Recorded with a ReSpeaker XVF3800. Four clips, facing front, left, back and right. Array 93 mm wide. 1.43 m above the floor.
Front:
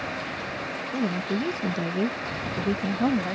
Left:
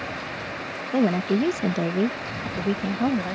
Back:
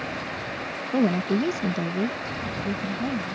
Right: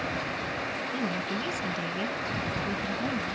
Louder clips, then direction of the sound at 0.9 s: Left 13 dB, back 5 dB; 120° left.